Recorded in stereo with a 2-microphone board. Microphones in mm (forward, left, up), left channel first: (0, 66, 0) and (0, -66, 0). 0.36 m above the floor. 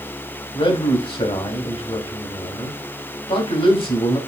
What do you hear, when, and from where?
0.5 s a man speaking: 45° left (ahead or behind), 2.5 m